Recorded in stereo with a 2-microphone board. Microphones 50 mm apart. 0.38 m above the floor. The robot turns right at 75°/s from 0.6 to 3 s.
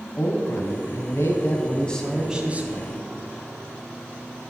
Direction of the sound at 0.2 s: 60° left.